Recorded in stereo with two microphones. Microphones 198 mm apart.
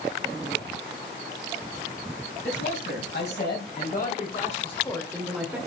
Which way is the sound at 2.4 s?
65° left (ahead or behind).